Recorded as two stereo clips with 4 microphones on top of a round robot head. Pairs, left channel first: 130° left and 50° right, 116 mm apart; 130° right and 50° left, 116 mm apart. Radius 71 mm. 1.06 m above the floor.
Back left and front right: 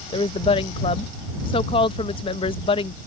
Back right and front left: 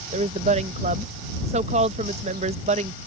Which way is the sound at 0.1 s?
85° left.